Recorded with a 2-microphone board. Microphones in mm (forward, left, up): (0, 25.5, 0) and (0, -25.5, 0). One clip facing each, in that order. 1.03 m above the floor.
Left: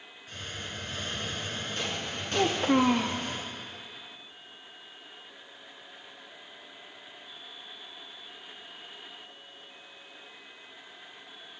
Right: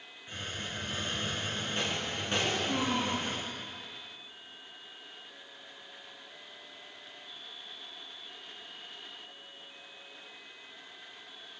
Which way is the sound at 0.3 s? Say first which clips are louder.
Right 1 dB; 20° right (ahead or behind).